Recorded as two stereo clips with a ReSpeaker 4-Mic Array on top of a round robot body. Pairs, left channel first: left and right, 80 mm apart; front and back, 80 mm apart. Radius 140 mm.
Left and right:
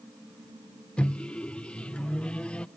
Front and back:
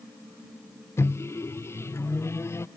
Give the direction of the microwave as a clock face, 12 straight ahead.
11 o'clock.